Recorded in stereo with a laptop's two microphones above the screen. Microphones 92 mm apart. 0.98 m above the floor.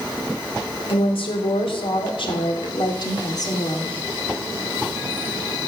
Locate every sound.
0.9 s a woman speaking: 80° left, 3 m; by 4.0 s 35° left (ahead or behind), 2 m